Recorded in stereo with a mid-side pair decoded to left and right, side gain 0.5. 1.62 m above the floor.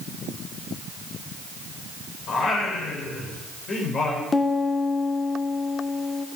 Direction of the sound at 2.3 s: 50° left.